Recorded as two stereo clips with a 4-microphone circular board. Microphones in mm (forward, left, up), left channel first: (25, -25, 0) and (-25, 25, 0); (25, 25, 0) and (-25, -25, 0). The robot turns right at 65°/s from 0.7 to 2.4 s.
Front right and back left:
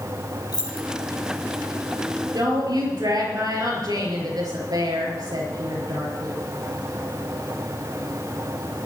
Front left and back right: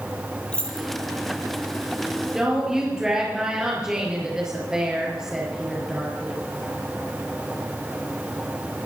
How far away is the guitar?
No guitar in this recording.